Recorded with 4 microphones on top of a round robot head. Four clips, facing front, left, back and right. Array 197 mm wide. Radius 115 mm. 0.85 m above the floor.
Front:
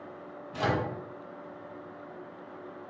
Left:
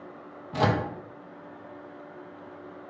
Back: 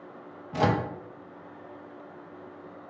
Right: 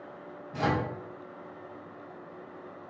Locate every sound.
0.5 s a microwave: 130° left, 0.5 m